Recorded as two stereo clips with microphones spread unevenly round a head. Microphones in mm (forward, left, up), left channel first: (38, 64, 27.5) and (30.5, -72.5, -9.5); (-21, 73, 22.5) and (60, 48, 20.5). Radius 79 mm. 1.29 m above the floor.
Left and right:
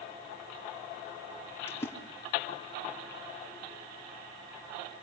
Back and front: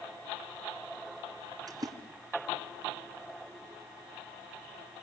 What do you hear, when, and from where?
1.7 s a splash: 20° left, 3 m